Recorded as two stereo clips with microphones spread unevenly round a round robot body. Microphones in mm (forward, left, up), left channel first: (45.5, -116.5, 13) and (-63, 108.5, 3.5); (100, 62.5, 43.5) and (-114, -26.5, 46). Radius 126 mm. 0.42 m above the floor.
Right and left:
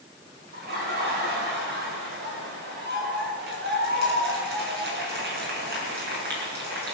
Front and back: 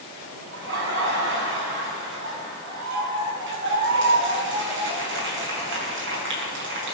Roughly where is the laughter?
Behind.